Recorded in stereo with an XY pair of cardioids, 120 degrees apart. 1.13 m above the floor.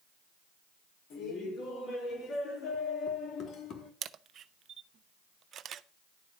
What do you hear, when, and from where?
1.1 s laughter: 55° left, 4.5 m
4.0 s a camera shutter: 50° right, 0.6 m